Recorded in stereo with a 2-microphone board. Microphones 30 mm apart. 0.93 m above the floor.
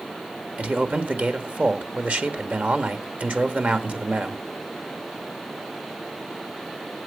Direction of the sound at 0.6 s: 55° right (ahead or behind).